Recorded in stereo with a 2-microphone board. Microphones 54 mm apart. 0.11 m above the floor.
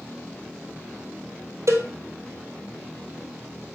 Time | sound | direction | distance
1.7 | a cowbell | 60° right (ahead or behind) | 1.5 m